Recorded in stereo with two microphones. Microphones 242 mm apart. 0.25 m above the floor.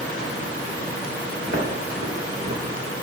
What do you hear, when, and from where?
1.5 s footsteps: 75° right (ahead or behind), 1.5 m; by 2.6 s 80° right, 0.9 m